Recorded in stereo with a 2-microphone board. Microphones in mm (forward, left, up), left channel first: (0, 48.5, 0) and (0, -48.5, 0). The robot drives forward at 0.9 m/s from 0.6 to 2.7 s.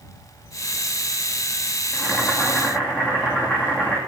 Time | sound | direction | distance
1.9 | boiling | 20° left (ahead or behind) | 2.5 m